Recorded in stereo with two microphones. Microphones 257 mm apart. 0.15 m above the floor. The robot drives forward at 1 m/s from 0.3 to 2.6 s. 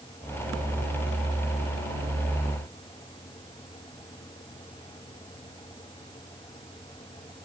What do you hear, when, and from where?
Only background noise.